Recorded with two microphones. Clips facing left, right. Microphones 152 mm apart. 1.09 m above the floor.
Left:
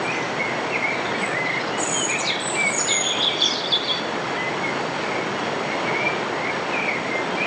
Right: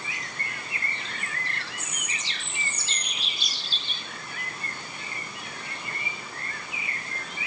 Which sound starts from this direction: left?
Running water, at 0.0 s.